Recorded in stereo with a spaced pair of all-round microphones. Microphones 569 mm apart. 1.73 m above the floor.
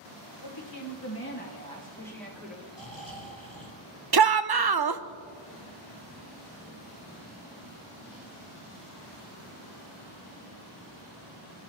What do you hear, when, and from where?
0.4 s a woman speaking: 50° left (ahead or behind), 2.0 m; by 2.6 s 5° right (ahead or behind), 3.5 m
2.7 s snoring: 75° right (ahead or behind), 3.5 m
4.1 s a shout: 45° right (ahead or behind), 0.6 m